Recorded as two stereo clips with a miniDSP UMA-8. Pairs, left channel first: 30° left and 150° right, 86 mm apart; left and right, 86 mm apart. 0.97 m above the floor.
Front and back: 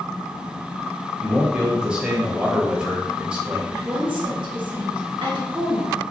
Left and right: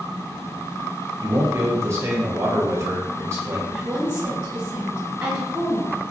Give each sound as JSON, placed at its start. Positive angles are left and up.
{"t": 1.2, "sound": "a man speaking", "azimuth_deg": -80, "distance_m": 0.8}
{"t": 3.7, "sound": "a woman speaking", "azimuth_deg": -165, "distance_m": 1.1}